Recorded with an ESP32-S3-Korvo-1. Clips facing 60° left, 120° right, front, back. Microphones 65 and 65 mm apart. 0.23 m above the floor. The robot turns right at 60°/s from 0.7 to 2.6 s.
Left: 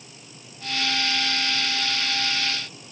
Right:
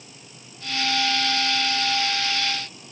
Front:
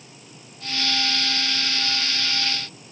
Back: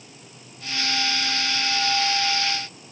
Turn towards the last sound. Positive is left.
No sound to turn to.